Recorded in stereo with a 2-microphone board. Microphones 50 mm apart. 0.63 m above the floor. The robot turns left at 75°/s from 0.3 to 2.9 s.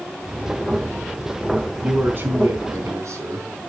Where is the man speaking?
15° right, 5 m; by 3.5 s 100° right, 5 m.